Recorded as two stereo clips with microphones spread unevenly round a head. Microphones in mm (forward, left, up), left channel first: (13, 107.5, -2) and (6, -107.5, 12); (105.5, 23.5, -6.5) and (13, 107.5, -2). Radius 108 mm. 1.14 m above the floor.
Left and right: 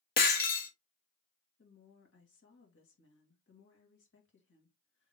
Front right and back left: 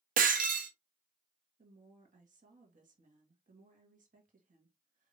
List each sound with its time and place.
0.2 s breaking glass: 140° left, 1.0 m
1.6 s a woman speaking: 125° left, 2 m